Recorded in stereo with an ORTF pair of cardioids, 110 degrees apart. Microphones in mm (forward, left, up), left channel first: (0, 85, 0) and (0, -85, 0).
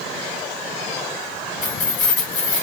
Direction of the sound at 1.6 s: 50° left.